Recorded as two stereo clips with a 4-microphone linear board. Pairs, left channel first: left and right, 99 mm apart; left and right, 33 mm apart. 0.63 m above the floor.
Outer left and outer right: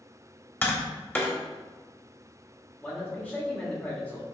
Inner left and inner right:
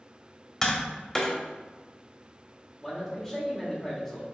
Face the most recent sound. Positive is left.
turn(degrees=15)  # may be behind; listen again after turning